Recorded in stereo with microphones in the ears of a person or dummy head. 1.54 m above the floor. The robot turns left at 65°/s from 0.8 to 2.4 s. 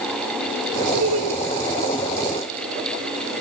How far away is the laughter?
About 2.5 m.